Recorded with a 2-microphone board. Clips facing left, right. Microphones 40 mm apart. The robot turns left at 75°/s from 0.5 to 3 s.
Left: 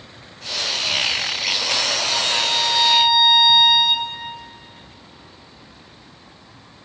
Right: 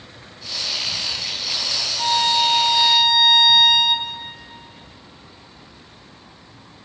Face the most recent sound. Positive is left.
turn(degrees=170)